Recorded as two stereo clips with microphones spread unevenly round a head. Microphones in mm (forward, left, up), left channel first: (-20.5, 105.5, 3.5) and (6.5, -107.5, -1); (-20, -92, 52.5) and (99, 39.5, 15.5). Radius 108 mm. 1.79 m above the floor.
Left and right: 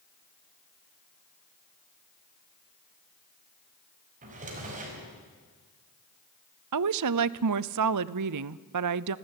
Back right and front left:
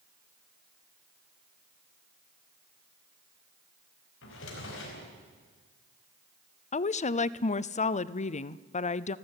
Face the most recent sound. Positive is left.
turn(degrees=-80)